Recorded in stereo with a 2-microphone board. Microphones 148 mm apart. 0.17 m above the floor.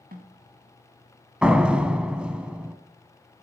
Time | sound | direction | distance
0.1 | a snare drum | 70° right (ahead or behind) | 3 m
1.4 | a door slam | 5° right (ahead or behind) | 0.9 m